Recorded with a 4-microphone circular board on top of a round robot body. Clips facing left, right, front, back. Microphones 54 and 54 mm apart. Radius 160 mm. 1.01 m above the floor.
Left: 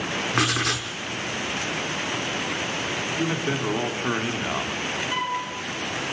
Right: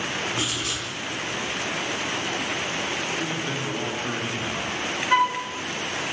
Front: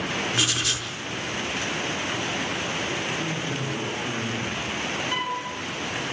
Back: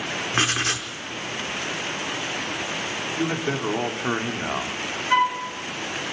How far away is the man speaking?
About 3.5 m.